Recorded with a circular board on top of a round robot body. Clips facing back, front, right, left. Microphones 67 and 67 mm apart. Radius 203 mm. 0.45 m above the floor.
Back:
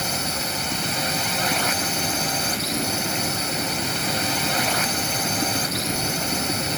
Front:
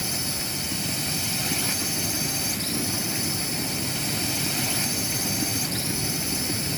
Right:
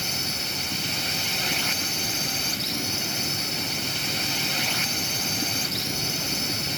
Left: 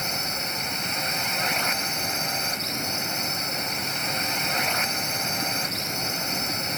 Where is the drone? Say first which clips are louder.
Back 5 dB, left 2 dB; 150° left.